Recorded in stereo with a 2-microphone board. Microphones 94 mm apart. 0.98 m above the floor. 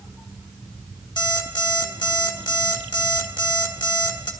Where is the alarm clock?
55° left (ahead or behind), 1.5 m.